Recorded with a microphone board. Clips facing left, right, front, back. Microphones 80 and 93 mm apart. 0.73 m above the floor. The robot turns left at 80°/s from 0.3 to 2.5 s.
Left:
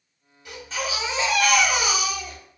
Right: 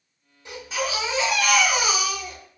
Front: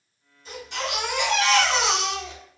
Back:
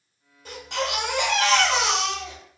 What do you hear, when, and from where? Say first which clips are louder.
0.5 s a baby crying: right 2 dB, back 3 dB; 155° right, 1.3 m; by 2.4 s 55° left, 1.3 m